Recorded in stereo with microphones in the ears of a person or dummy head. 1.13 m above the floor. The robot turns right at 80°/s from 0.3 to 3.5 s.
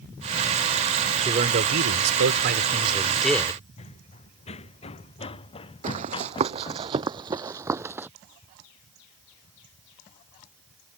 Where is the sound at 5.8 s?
45° right (ahead or behind); by 8.1 s 15° right (ahead or behind).